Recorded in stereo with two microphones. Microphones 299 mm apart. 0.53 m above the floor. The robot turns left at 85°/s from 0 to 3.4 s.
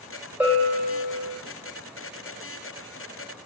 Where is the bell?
175° right, 2.5 m; by 1.3 s 110° left, 2.5 m.